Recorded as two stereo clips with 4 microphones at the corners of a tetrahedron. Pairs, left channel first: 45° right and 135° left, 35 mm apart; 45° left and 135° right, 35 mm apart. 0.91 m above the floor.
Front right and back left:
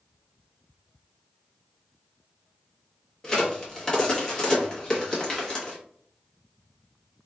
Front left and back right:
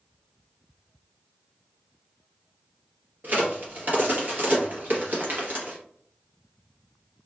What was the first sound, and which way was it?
A crack, 110° right.